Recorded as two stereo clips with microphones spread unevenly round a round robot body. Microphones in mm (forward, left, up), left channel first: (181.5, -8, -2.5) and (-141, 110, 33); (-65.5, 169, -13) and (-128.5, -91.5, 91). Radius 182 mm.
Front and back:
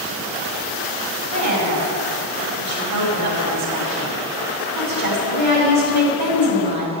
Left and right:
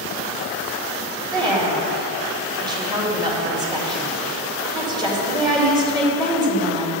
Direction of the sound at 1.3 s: Straight behind.